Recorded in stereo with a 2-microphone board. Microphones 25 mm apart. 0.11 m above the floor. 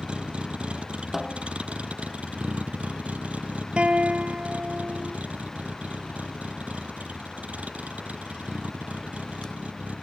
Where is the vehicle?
50° right (ahead or behind); by 10.0 s 90° right.